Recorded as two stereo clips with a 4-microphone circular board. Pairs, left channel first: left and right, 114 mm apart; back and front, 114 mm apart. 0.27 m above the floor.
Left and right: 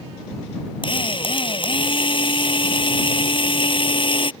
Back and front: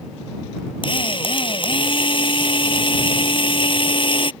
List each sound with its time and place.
0.8 s a drill: 135° left